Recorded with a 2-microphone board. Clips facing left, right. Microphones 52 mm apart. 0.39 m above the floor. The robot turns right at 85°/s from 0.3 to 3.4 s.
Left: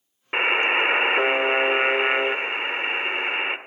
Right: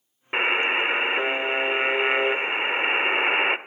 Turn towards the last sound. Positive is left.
turn(degrees=-20)  # may be behind; listen again after turning